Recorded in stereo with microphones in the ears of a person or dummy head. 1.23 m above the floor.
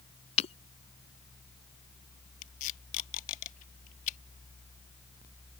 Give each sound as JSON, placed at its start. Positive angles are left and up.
{"t": 0.4, "sound": "breaking glass", "side_deg": 35}
{"t": 2.4, "sound": "tape being pulled", "side_deg": 40}